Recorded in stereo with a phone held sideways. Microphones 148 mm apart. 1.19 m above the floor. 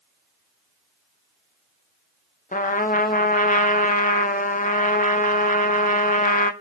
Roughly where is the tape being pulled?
I don't hear tape being pulled.